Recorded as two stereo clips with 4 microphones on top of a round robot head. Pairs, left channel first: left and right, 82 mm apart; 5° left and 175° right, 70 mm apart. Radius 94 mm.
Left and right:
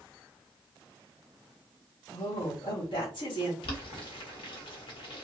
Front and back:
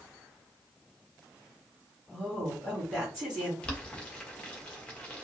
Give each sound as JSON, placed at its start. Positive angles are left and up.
{"t": 2.1, "sound": "a woman speaking", "azimuth_deg": 100, "distance_m": 1.9}
{"t": 3.6, "sound": "boiling", "azimuth_deg": 80, "distance_m": 1.2}